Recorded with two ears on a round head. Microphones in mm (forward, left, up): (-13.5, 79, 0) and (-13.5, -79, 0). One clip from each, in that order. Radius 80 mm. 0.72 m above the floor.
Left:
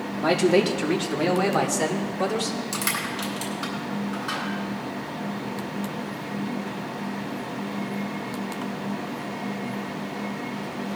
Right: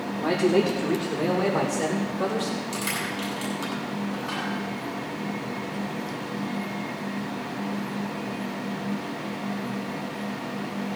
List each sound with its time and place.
0.2 s a man speaking: 60° left (ahead or behind), 1.3 m; by 2.6 s 20° left (ahead or behind), 3 m
2.7 s crushing: 30° left (ahead or behind), 7 m